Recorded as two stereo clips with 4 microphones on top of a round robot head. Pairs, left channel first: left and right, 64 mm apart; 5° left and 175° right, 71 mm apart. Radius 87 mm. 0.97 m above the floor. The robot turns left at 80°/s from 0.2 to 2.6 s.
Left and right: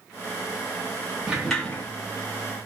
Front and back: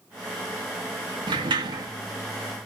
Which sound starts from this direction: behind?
A sliding door, at 1.3 s.